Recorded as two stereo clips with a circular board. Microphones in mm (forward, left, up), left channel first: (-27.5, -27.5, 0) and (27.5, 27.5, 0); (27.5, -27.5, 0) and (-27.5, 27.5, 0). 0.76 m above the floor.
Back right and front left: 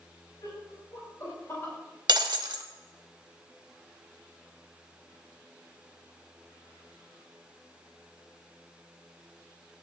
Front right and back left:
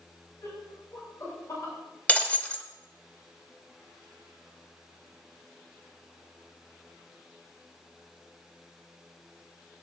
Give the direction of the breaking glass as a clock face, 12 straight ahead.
11 o'clock.